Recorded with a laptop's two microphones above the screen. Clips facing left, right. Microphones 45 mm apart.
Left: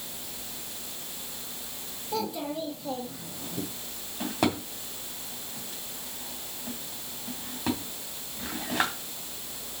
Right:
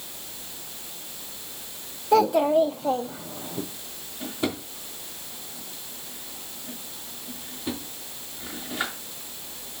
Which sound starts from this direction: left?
A drawer, at 4.2 s.